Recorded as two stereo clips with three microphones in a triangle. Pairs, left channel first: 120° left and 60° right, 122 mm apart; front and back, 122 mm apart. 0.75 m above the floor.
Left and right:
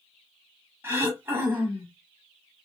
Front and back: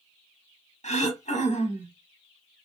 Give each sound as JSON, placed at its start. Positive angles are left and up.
{"t": 0.8, "sound": "throat clearing", "azimuth_deg": 10, "distance_m": 0.8}